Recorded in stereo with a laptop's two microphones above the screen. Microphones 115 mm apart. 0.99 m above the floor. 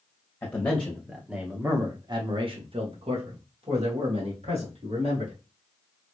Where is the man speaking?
15° left (ahead or behind), 1.0 m; by 5.3 s 60° right (ahead or behind), 2 m.